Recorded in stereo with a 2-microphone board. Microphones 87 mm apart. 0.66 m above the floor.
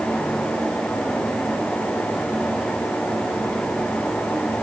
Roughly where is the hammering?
I don't hear hammering.